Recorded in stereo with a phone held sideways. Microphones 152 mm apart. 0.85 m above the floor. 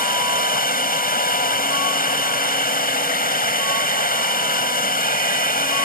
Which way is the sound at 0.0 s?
65° left (ahead or behind).